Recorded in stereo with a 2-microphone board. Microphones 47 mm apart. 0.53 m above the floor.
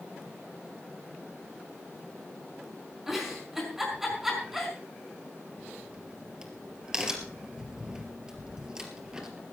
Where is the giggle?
5° right (ahead or behind), 6 m.